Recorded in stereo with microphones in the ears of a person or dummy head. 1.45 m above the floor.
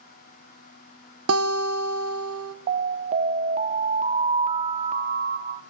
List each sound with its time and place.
1.3 s a guitar: 80° right, 1.3 m
2.7 s an alarm: 40° right (ahead or behind), 0.7 m